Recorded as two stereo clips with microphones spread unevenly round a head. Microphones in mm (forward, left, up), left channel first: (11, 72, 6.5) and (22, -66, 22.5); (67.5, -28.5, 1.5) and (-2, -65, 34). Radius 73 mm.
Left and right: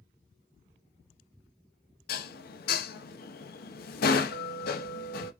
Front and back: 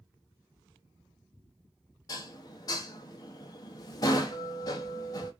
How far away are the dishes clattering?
About 0.7 m.